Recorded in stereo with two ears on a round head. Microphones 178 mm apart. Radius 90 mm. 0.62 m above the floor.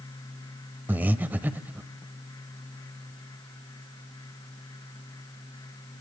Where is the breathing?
10° right (ahead or behind), 0.6 m.